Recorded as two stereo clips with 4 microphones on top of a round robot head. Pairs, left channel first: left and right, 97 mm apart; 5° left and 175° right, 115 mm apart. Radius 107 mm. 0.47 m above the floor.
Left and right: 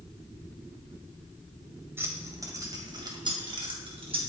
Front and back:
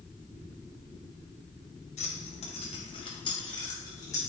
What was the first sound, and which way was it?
Keys jangling, 25° right.